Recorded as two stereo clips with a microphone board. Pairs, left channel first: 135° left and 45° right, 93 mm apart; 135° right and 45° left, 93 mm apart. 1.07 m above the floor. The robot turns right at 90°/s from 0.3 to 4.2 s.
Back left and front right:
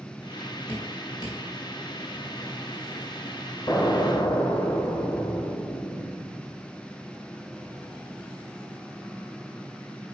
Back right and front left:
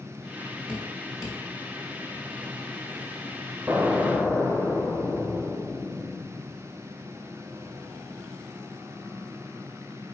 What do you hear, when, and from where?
0.7 s dripping: 125° left, 2.0 m; by 1.4 s 175° right, 2.0 m
3.7 s an explosion: 90° left, 1.0 m; by 6.6 s 140° left, 1.0 m